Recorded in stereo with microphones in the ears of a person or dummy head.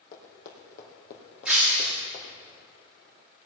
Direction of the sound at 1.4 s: Centre (ahead or behind).